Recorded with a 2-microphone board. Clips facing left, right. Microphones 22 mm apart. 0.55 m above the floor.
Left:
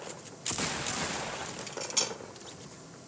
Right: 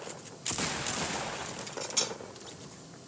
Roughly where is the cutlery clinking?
Centre.